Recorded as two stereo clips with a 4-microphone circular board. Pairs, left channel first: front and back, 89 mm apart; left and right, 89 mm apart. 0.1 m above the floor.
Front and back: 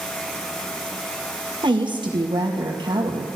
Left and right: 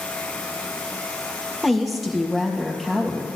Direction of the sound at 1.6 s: Straight behind.